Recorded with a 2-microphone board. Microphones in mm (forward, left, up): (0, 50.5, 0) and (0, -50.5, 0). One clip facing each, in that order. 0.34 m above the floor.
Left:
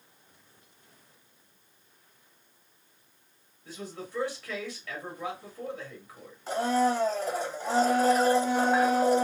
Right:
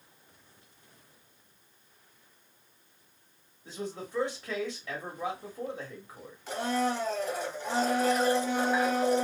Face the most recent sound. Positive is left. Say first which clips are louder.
# left 4 dB
turn(degrees=35)  # may be behind; listen again after turning